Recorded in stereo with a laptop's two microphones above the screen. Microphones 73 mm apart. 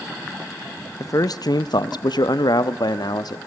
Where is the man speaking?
45° left (ahead or behind), 0.6 m; by 3.4 s 65° left (ahead or behind), 1.4 m.